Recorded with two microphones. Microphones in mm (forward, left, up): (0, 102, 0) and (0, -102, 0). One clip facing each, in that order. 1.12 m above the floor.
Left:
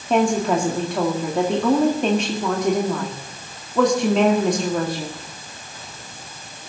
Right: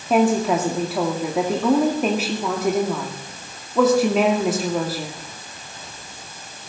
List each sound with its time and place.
0.1 s a woman speaking: 5° right (ahead or behind), 2.0 m